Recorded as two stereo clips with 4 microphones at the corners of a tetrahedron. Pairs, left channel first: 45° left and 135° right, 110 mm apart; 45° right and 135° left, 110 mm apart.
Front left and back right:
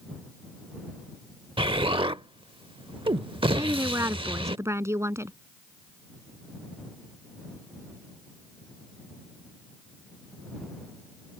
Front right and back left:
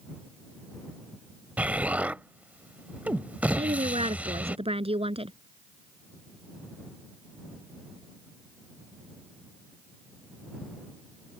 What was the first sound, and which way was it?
An explosion, 155° right.